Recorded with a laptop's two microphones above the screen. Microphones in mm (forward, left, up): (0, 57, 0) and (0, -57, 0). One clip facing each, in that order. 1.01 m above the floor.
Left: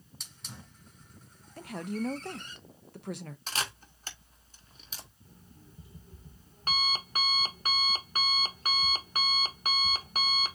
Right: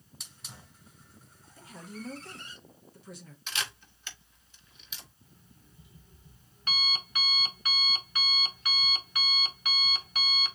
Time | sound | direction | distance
0.2 | a hiss | centre (ahead or behind) | 1.8 m
1.6 | a woman speaking | 70° left (ahead or behind) | 0.5 m
3.5 | a camera shutter | 40° left (ahead or behind) | 0.8 m
5.2 | an alarm clock | 40° left (ahead or behind) | 1.0 m